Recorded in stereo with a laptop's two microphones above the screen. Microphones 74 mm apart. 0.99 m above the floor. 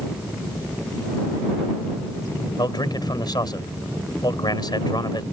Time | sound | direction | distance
2.6 | a man speaking | 70° left (ahead or behind) | ?